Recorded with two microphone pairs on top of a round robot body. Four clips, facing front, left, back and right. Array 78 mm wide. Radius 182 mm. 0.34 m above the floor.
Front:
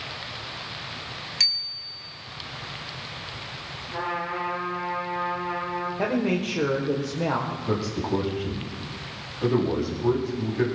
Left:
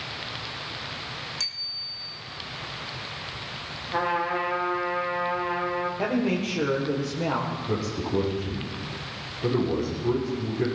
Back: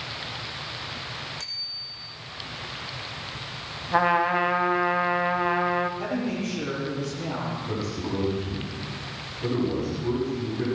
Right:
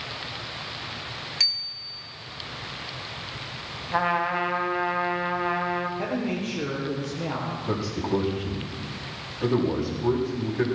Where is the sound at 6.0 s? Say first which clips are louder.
Left 3 dB, front 4 dB; 20° left, 2.0 m.